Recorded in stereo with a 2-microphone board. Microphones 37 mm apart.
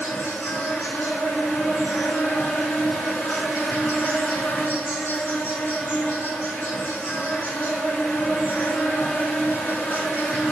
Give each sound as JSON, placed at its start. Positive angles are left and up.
{"t": 0.0, "sound": "an insect", "side_deg": 65, "distance_m": 1.0}